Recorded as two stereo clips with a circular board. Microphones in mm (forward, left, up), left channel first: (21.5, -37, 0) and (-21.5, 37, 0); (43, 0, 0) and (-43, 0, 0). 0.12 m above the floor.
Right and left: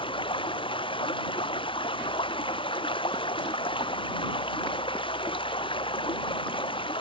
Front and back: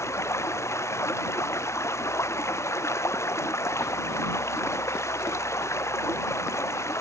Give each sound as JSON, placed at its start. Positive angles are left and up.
{"t": 0.0, "sound": "running water", "azimuth_deg": -55}